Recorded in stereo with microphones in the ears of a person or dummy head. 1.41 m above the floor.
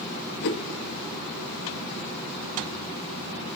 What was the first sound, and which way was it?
A whoosh, 60° left (ahead or behind).